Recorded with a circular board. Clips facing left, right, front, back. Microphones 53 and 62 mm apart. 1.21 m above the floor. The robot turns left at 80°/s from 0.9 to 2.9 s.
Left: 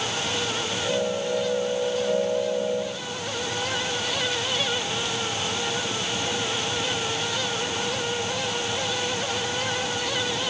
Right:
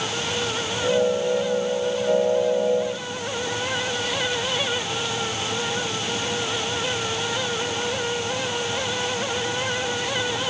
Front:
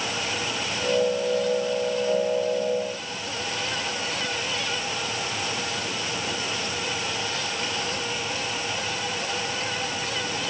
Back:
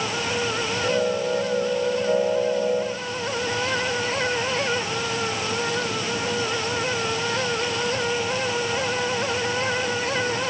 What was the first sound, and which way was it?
Only background noise.